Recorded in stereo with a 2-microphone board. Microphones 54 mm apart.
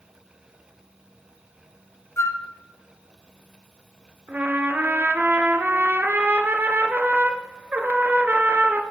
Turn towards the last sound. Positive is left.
turn(degrees=-35)  # may be behind; listen again after turning